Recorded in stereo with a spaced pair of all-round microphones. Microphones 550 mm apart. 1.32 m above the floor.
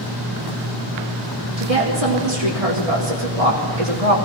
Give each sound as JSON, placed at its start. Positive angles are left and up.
{"t": 1.6, "sound": "a woman speaking", "side_deg": -80, "distance_m": 3.5}